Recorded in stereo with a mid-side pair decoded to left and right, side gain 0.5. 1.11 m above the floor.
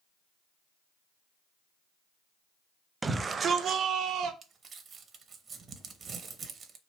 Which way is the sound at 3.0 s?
20° right.